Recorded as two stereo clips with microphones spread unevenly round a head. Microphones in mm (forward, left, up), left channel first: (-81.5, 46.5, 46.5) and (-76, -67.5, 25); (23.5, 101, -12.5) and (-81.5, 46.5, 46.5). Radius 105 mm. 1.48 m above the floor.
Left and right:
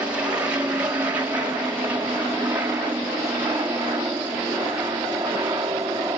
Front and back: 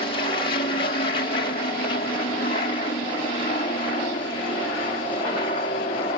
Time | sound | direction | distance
0.0 | an aircraft | 10° right | ?